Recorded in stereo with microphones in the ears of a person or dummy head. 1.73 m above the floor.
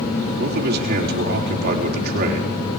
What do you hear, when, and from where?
0.4 s a man speaking: 55° right (ahead or behind), 4.5 m